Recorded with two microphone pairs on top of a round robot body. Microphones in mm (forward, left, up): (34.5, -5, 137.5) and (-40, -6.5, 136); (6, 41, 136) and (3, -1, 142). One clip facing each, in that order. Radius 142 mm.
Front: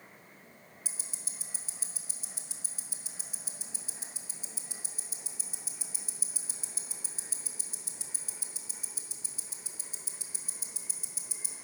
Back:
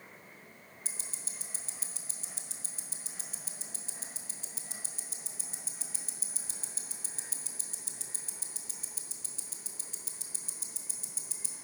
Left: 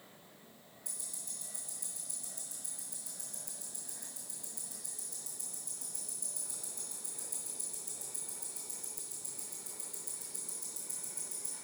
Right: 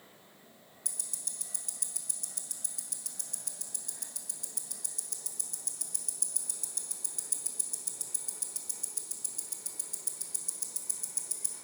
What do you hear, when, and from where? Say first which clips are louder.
0.8 s ticking: back 1 dB, right 4 dB; 75° right, 1.1 m